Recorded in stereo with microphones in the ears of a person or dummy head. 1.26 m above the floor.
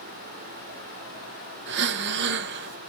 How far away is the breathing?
About 0.6 m.